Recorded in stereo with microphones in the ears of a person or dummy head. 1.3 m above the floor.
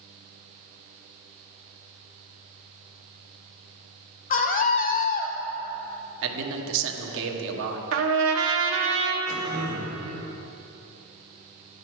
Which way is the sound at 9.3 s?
45° right (ahead or behind).